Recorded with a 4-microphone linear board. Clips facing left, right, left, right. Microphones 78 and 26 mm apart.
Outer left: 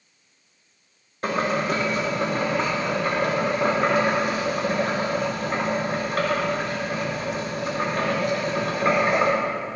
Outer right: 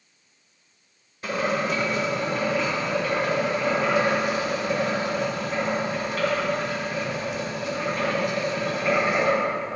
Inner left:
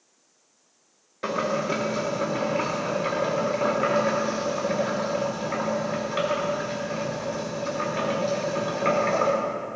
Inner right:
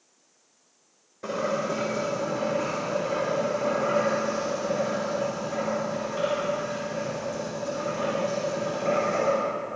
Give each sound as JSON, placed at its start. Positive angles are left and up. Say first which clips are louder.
{"t": 1.2, "sound": "boiling", "louder": "outer left 2 dB, inner left 2 dB", "side_deg": 55, "distance_m": 4.0}